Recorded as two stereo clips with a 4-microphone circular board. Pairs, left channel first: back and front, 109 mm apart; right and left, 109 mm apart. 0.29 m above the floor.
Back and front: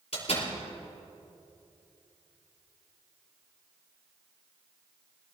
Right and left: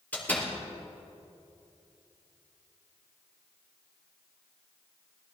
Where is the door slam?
165° right, 5.5 m.